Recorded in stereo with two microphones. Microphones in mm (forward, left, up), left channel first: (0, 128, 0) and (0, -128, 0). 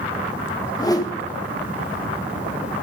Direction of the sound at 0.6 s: 15° left (ahead or behind).